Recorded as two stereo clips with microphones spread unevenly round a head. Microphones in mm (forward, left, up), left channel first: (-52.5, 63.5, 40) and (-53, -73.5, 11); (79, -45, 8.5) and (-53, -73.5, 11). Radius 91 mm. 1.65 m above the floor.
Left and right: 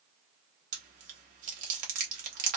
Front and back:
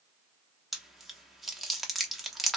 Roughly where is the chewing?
Right.